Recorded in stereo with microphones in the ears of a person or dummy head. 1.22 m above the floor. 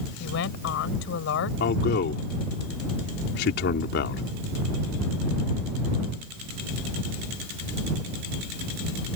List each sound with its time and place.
0.2 s a woman speaking: 75° left (ahead or behind)
1.6 s a man speaking: 60° left (ahead or behind)